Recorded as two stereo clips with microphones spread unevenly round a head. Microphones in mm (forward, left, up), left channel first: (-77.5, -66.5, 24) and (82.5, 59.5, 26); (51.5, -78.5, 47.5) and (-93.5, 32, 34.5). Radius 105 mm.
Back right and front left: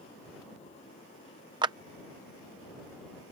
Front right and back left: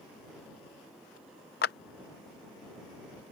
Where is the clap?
25° right.